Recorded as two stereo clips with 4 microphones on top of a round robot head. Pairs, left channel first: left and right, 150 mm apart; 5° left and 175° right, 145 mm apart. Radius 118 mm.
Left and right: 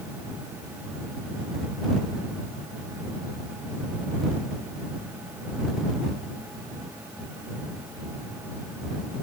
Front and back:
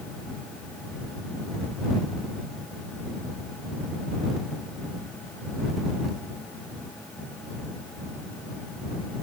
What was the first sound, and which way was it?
Only background noise.